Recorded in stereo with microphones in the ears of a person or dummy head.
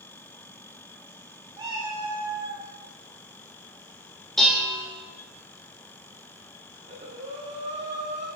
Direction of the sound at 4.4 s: Centre (ahead or behind).